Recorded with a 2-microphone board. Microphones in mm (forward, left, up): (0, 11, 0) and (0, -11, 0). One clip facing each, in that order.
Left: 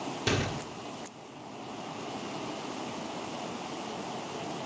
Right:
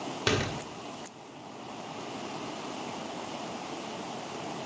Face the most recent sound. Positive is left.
turn(degrees=-30)  # may be behind; listen again after turning